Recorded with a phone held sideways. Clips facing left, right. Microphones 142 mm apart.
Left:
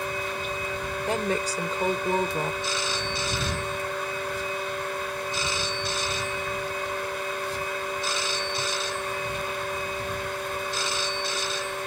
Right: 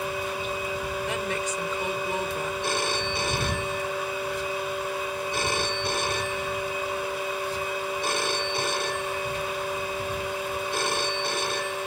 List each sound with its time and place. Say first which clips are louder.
0.0 s a fan: right 1 dB; 10° right (ahead or behind)
1.1 s a woman speaking: left 7 dB; 35° left (ahead or behind)
2.6 s a phone ringing: right 3 dB; 55° right (ahead or behind)